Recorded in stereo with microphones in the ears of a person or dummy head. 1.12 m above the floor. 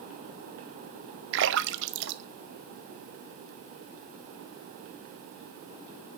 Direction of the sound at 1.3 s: 65° right (ahead or behind).